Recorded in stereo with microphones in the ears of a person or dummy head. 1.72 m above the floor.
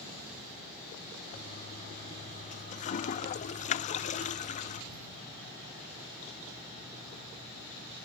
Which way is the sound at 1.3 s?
40° left (ahead or behind).